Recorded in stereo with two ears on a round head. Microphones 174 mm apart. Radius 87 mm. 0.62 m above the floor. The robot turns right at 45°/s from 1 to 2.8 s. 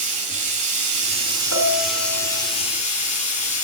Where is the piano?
65° left, 4 m; by 2.4 s 105° left, 4 m.